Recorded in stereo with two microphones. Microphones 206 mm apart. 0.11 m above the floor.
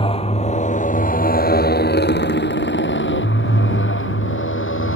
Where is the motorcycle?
25° left (ahead or behind); by 5.0 s 80° left.